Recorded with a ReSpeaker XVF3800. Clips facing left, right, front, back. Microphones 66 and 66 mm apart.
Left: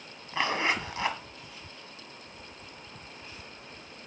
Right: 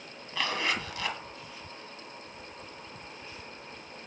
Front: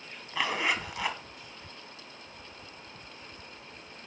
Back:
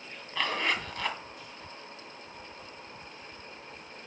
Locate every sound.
0.3 s a zipper: 70° left, 1.7 m